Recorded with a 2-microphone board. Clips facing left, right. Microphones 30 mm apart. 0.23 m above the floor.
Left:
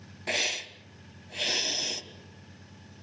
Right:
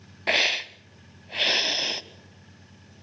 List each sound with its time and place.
0.3 s a hiss: 35° right (ahead or behind), 0.9 m